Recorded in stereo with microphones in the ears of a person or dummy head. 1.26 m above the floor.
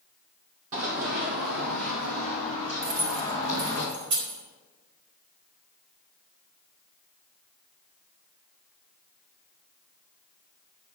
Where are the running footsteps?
50° right (ahead or behind), 1.9 m; by 3.8 s 40° right (ahead or behind), 3.5 m.